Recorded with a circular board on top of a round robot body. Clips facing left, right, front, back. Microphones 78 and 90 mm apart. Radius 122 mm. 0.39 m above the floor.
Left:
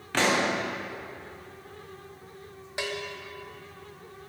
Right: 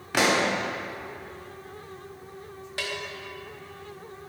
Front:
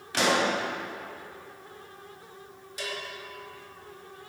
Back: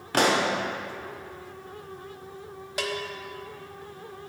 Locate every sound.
0.1 s a pop: 165° right, 1.2 m
2.8 s a bell: 160° left, 0.7 m